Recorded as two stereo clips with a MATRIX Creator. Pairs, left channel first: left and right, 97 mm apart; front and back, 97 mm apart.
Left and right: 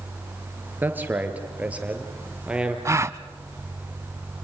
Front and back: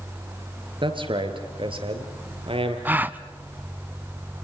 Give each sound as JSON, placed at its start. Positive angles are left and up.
{"t": 0.8, "sound": "a man speaking", "azimuth_deg": -160, "distance_m": 3.5}
{"t": 2.9, "sound": "a gasp", "azimuth_deg": -120, "distance_m": 0.7}